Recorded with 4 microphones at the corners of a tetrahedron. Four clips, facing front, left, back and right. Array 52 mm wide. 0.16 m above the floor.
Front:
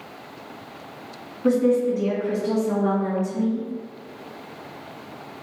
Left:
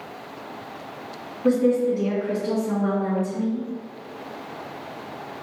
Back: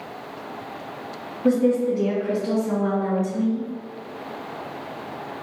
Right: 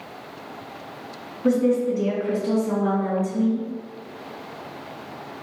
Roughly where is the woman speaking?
Ahead right.